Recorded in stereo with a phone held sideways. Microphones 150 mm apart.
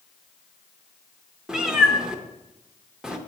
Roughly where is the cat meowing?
Centre.